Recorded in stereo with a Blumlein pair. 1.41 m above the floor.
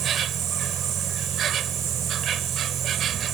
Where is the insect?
30° right.